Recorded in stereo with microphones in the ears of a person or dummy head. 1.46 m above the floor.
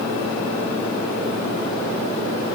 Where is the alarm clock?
No alarm clock in this recording.